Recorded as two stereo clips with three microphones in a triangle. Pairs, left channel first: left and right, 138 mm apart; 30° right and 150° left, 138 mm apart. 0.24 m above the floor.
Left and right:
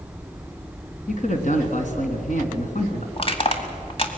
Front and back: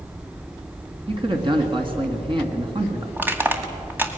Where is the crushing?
80° left, 2 m.